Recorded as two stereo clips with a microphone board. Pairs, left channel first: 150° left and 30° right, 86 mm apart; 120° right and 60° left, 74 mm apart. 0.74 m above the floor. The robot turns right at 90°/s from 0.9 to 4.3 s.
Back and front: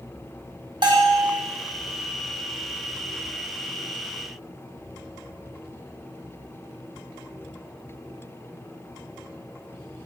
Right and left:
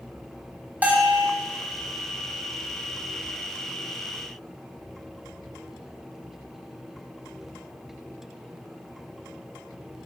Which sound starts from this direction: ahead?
A bell, at 0.8 s.